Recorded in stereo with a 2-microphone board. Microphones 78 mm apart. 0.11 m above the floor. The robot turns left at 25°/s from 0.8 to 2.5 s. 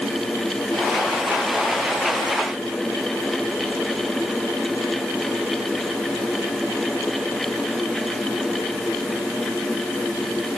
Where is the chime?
No chime in this recording.